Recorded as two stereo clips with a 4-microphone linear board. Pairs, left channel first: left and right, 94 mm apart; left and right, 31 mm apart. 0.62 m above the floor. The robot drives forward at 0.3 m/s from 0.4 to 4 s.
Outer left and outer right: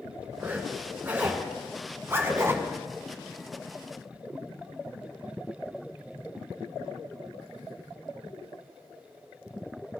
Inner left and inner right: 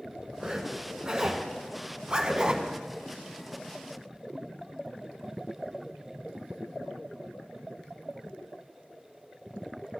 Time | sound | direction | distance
0.4 | a zipper | 20° right (ahead or behind) | 1.6 m